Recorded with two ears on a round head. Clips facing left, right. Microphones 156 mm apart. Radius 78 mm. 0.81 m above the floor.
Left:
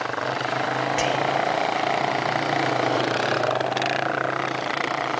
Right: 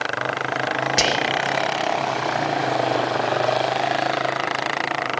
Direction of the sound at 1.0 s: 50° right (ahead or behind).